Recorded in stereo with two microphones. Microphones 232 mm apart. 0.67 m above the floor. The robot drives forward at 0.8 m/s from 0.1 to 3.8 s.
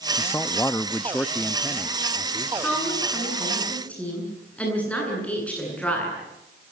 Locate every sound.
0.2 s a man speaking: 10° left (ahead or behind), 0.5 m; by 2.5 s 5° left (ahead or behind), 1.7 m
2.6 s a woman speaking: 5° left (ahead or behind), 8.5 m